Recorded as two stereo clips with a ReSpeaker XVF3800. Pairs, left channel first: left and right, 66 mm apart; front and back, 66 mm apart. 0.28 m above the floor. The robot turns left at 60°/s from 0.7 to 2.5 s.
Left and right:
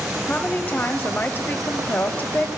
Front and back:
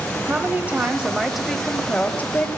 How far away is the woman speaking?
About 1.0 m.